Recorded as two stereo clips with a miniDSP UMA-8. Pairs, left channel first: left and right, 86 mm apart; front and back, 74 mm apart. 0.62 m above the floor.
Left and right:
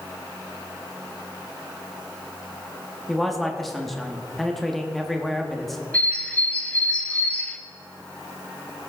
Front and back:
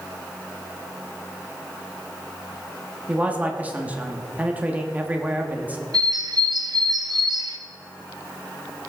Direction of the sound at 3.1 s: 175° left.